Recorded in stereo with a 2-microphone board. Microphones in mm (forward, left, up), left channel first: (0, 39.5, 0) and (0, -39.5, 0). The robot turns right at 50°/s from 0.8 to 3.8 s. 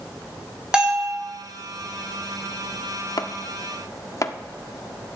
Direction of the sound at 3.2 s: 60° left (ahead or behind).